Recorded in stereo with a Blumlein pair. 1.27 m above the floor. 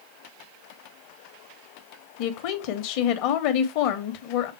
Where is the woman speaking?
45° left, 1.3 m.